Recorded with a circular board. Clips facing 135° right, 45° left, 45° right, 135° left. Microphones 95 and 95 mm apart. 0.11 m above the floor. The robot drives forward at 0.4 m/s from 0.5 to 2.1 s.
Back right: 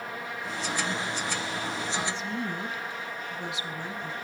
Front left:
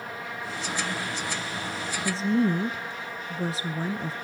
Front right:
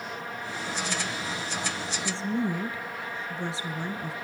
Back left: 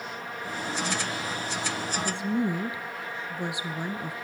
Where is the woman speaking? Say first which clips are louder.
Front left 8 dB, even; 65° left, 1.5 m.